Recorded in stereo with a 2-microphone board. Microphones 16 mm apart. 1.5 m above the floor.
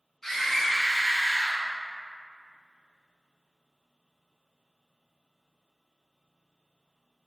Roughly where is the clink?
I don't hear a clink.